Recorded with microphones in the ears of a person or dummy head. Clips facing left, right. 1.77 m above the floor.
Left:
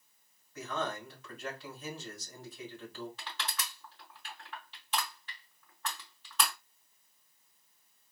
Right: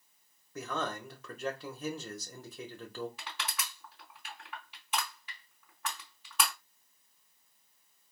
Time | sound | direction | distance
0.6 | a man speaking | 50° right (ahead or behind) | 1.4 m
3.2 | crushing | 10° right (ahead or behind) | 3.5 m